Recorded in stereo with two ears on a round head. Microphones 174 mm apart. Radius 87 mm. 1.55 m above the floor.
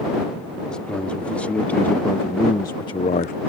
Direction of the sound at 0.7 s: 5° left (ahead or behind).